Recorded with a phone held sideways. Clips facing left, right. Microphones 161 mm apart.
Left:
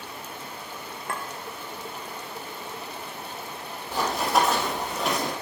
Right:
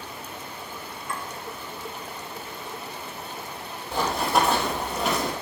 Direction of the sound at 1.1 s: 65° left (ahead or behind).